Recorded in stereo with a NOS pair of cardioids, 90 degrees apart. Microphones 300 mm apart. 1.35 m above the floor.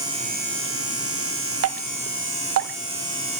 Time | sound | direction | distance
1.6 | dripping | 50° right | 0.9 m